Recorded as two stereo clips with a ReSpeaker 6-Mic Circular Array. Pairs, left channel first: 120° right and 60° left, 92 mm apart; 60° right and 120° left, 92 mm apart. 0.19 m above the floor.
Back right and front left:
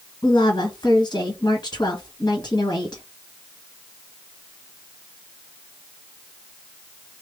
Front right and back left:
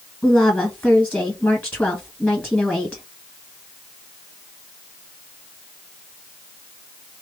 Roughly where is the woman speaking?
Behind right.